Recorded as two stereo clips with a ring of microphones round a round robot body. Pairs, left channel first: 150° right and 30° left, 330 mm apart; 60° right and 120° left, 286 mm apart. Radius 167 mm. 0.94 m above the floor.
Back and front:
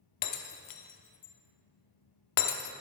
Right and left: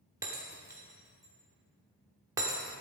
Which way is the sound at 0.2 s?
160° right.